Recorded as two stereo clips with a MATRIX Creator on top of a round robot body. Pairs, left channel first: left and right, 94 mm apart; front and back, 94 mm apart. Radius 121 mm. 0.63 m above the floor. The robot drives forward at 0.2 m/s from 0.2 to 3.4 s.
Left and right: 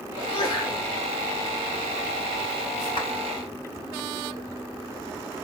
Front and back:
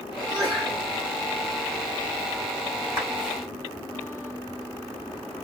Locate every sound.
0.2 s a sneeze: 135° left, 3 m
3.0 s a clap: 125° left, 3 m; by 3.1 s 130° left, 3 m